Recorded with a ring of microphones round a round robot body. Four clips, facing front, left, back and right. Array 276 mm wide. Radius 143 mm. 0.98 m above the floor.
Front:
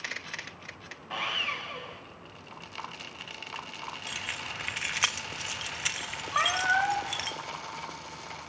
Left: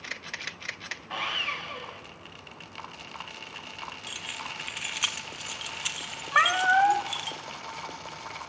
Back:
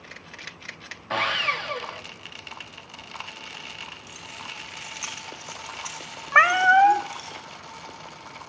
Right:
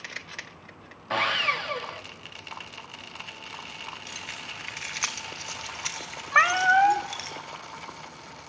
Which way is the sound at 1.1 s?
135° right.